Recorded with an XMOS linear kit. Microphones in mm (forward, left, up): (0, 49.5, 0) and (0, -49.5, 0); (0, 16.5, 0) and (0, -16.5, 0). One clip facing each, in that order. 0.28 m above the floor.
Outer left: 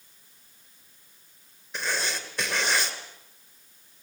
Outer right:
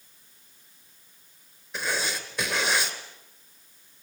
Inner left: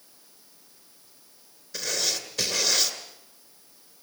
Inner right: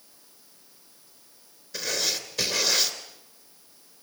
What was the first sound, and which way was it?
Writing, centre (ahead or behind).